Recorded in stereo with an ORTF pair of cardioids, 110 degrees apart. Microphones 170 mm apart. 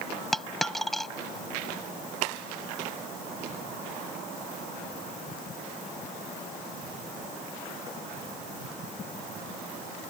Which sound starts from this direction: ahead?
A dropped coin, at 0.3 s.